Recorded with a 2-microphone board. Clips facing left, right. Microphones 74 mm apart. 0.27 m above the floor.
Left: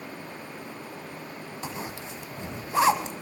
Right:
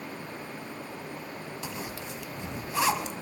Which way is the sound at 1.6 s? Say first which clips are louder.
Left 4 dB; 30° left (ahead or behind).